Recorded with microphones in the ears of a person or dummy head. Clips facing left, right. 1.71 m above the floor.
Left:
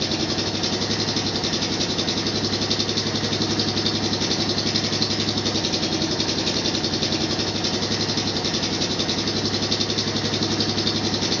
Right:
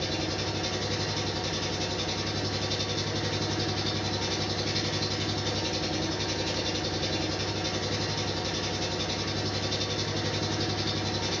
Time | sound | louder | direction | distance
0.0 | an engine running | left 7 dB | 65° left (ahead or behind) | 1.0 m